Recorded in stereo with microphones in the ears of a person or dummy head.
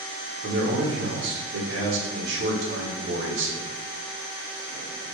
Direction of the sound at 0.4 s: 70° right (ahead or behind).